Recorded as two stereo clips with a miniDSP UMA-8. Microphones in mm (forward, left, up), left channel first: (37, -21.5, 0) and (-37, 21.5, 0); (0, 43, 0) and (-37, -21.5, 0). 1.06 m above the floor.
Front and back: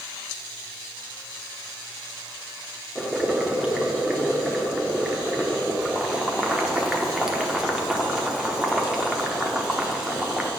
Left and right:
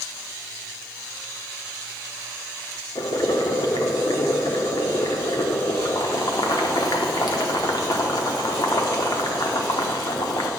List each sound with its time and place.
3.0 s boiling: 70° left, 0.9 m